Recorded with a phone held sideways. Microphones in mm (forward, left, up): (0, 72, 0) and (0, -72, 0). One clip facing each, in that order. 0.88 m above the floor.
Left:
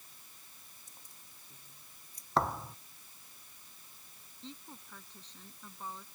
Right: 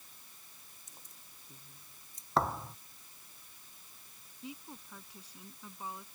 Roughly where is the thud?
Centre.